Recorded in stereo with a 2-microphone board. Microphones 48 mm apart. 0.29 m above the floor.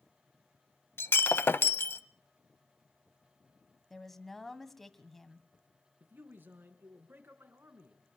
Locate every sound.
1.0 s breaking glass: 55° left (ahead or behind), 0.7 m
3.9 s a woman speaking: 5° left (ahead or behind), 1.6 m
6.0 s a man speaking: 50° right (ahead or behind), 3.5 m